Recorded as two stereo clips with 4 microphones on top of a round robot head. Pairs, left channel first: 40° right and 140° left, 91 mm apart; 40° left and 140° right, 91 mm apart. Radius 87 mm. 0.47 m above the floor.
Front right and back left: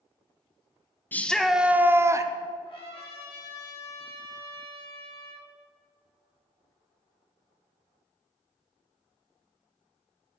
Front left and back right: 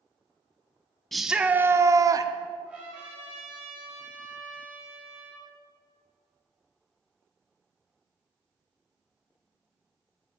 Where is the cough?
No cough in this recording.